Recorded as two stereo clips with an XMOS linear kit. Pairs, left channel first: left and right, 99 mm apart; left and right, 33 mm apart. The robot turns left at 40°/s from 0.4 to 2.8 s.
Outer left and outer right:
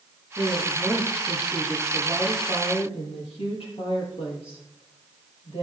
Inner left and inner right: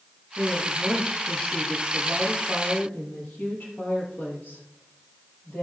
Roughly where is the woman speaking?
Behind.